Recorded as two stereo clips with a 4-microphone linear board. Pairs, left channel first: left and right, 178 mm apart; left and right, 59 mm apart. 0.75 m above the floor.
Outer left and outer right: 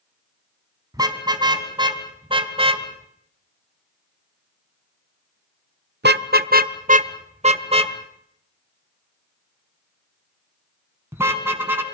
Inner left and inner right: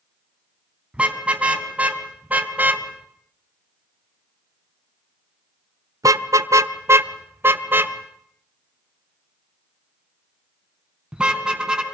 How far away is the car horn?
About 3 m.